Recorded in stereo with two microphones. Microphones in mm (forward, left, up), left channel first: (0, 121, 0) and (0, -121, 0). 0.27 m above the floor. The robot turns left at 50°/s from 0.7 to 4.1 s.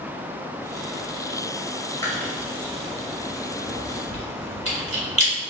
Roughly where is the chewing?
Centre.